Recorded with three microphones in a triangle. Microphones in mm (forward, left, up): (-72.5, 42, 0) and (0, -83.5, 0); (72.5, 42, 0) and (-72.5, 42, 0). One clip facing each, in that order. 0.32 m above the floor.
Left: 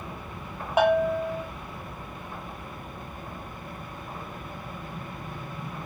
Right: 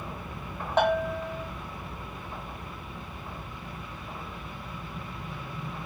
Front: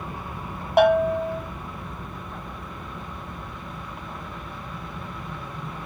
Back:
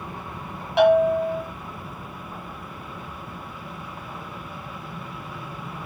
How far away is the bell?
About 1.0 m.